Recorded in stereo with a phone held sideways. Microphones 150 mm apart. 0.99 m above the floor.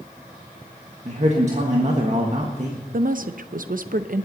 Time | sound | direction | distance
1.1 | a man speaking | 50° right (ahead or behind) | 1.5 m
2.9 | a woman speaking | 65° right (ahead or behind) | 0.6 m